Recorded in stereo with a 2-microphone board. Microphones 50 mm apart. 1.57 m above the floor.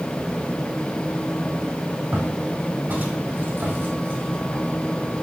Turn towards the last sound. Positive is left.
turn(degrees=-50)  # may be behind; listen again after turning